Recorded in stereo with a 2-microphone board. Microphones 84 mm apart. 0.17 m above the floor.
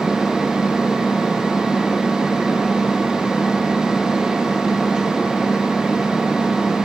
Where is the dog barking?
No dog barking in this recording.